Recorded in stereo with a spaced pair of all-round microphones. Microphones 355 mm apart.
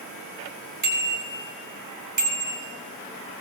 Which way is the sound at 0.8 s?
55° right (ahead or behind).